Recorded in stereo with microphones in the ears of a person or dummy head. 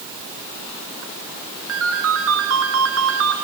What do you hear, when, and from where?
1.7 s a ringtone: 75° right (ahead or behind), 2.5 m